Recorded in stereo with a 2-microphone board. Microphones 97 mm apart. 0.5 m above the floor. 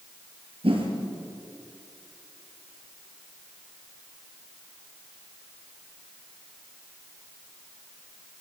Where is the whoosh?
65° right (ahead or behind), 6 m.